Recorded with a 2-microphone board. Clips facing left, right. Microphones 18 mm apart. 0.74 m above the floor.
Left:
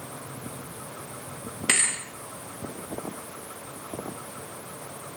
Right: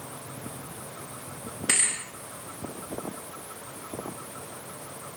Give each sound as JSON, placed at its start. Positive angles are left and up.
{"t": 1.7, "sound": "a thud", "side_deg": 15, "distance_m": 4.5}